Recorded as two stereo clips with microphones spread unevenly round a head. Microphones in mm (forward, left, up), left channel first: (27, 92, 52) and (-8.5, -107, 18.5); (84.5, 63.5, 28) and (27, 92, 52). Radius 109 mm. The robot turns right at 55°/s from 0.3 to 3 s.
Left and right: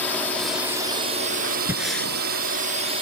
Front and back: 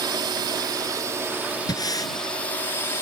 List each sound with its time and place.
0.0 s a drone: 165° left; by 3.0 s 50° right
1.7 s breathing: 20° right; by 2.1 s 5° left